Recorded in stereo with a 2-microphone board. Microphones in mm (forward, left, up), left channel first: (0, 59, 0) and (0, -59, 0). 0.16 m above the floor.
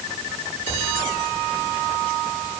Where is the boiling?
I don't hear boiling.